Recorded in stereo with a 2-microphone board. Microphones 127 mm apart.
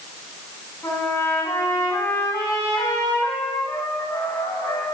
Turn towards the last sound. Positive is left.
turn(degrees=20)  # may be behind; listen again after turning